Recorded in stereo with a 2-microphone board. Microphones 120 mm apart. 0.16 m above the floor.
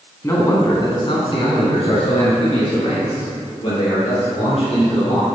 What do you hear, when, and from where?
0.2 s a man speaking: 25° left (ahead or behind), 1.5 m; by 5.2 s 55° left (ahead or behind), 4.5 m